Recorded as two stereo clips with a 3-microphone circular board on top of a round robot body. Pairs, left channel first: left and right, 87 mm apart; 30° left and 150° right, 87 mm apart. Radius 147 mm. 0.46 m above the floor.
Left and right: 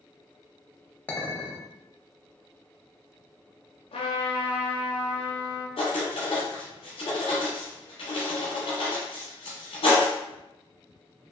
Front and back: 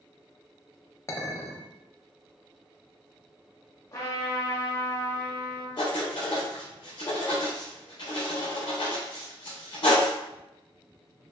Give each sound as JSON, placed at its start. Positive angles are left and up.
{"t": 1.1, "sound": "a clink", "azimuth_deg": 35, "distance_m": 0.8}
{"t": 3.9, "sound": "a trumpet", "azimuth_deg": 90, "distance_m": 0.6}
{"t": 5.8, "sound": "writing", "azimuth_deg": 75, "distance_m": 0.6}